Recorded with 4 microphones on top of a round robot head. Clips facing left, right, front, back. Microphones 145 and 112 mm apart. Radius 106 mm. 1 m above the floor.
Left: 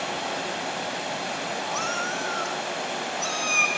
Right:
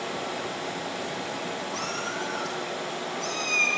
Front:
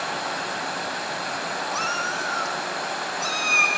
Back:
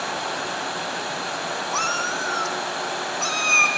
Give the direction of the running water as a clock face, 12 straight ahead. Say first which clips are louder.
Left 2 dB, back 1 dB; 9 o'clock.